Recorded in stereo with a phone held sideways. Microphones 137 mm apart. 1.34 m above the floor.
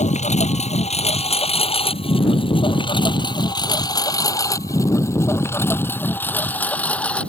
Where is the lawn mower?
60° left (ahead or behind); by 7.3 s 10° left (ahead or behind).